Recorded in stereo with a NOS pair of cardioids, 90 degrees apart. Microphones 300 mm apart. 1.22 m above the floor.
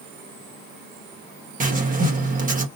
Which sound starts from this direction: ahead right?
Writing, at 1.6 s.